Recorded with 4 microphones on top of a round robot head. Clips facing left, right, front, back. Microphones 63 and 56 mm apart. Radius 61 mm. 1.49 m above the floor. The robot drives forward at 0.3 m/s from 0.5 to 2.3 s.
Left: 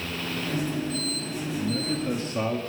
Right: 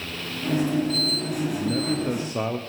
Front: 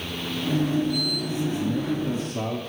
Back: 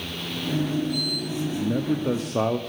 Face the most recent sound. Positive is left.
turn(degrees=-165)